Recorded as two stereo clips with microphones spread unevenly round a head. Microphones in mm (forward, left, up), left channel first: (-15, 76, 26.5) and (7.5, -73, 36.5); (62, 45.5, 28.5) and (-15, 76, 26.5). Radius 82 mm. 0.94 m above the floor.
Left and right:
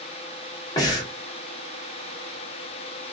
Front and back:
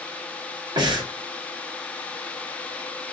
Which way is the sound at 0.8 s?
155° left.